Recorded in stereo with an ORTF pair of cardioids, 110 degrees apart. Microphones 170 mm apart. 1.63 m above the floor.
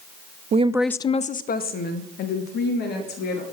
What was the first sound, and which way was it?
A woman speaking, 45° right.